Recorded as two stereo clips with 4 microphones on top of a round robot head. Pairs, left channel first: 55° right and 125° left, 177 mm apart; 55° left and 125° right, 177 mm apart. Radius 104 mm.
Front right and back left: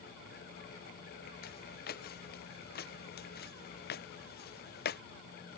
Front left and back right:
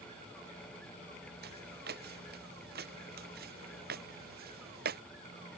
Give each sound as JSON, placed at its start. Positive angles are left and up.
{"t": 1.4, "sound": "footsteps", "azimuth_deg": -90}